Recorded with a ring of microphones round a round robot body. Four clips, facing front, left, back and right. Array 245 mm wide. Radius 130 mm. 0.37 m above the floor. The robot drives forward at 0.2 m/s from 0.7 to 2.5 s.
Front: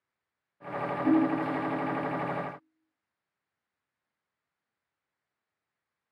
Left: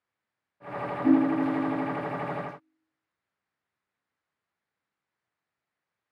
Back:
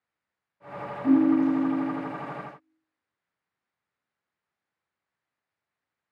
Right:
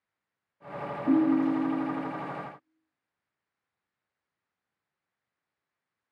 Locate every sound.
1.0 s a ringtone: 130° left, 1.2 m; by 2.1 s 135° left, 1.3 m